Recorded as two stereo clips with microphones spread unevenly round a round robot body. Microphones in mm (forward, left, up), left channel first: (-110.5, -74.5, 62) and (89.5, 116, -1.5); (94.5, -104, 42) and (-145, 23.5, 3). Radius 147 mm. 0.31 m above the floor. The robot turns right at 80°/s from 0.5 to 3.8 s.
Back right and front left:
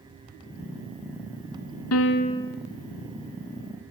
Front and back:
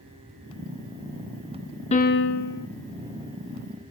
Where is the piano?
95° right, 1.3 m; by 2.7 s 35° right, 1.3 m.